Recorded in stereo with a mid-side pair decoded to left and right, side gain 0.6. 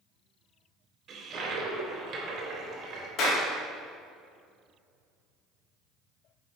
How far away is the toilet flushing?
About 3 m.